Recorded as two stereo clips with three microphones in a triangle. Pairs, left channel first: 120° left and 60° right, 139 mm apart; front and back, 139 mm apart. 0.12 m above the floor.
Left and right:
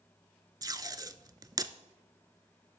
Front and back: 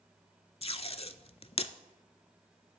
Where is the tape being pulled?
10° right, 0.5 m.